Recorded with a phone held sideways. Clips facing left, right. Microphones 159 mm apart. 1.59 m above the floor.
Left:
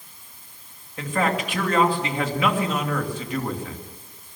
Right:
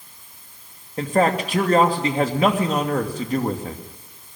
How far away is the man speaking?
About 2.5 m.